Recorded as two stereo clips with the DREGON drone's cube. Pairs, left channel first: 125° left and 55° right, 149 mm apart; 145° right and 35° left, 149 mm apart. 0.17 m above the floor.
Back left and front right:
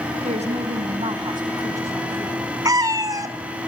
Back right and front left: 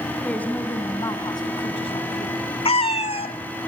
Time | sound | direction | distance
0.2 | a woman speaking | 65° right | 2 m
2.6 | a cat meowing | 115° right | 1.1 m